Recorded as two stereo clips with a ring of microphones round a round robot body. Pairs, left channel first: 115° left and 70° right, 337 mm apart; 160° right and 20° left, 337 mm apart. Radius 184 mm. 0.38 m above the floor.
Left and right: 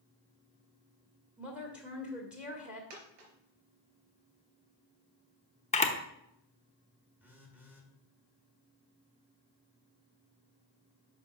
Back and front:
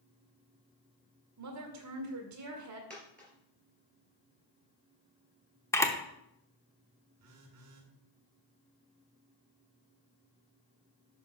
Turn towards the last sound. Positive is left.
turn(degrees=15)